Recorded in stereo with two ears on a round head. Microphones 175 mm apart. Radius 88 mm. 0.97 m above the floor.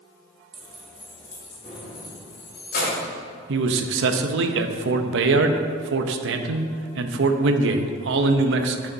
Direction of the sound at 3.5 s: 65° right (ahead or behind).